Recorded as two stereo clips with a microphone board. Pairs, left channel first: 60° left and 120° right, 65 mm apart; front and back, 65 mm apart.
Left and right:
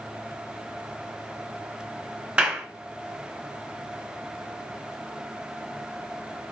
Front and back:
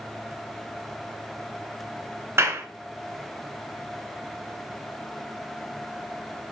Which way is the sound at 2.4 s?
Straight behind.